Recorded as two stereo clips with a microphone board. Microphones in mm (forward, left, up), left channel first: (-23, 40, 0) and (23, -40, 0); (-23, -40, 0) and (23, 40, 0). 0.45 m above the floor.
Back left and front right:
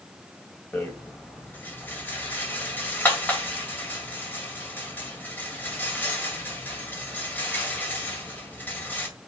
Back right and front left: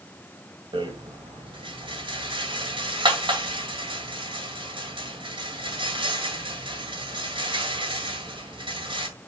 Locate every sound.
0.7 s a rattle: 50° left, 1.9 m